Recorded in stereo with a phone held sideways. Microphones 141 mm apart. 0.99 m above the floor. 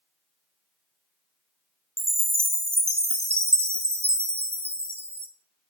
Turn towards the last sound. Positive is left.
turn(degrees=-45)  # may be behind; listen again after turning